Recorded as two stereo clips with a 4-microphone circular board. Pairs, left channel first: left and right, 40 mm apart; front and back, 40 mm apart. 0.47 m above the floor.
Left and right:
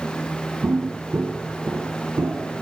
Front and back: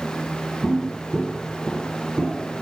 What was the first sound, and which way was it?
Footsteps, 75° right.